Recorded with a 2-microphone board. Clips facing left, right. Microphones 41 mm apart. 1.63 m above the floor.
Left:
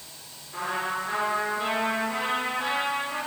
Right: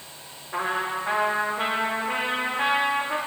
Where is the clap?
No clap in this recording.